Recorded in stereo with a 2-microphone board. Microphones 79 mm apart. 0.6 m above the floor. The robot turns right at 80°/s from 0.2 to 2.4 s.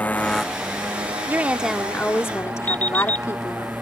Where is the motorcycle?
160° left; by 3.8 s 20° right.